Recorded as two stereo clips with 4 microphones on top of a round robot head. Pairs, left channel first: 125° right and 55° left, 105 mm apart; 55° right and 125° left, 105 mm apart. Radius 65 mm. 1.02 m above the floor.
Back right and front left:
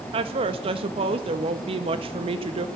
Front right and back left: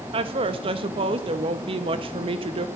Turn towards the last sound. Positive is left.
turn(degrees=90)